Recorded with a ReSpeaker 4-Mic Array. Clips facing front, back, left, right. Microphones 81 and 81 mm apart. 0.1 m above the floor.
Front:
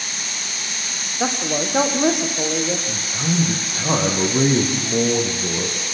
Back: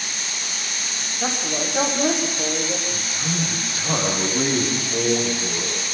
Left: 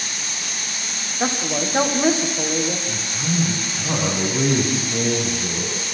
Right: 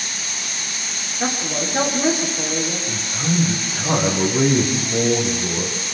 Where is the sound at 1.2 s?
25° left, 6 m.